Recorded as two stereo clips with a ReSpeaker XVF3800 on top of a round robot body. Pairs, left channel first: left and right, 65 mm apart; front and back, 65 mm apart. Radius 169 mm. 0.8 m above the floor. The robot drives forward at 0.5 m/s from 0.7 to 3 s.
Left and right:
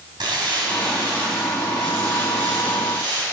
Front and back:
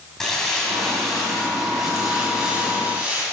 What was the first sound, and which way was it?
Crumpling, 85° right.